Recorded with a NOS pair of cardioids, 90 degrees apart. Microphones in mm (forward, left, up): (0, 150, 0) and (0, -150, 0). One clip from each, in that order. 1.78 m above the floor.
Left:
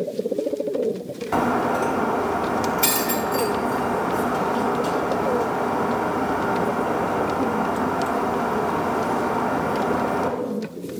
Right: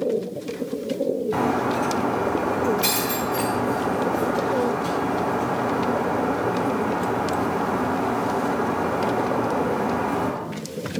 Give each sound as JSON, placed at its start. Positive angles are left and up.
{"t": 1.3, "sound": "breaking glass", "azimuth_deg": 50, "distance_m": 4.0}